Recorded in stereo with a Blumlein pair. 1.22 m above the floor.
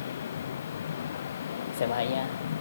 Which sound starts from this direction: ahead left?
A vehicle, at 0.0 s.